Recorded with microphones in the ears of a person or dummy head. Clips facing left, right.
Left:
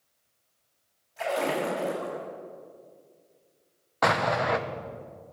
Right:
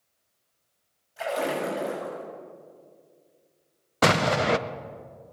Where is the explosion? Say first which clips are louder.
Right 3 dB; 35° right (ahead or behind), 0.6 m.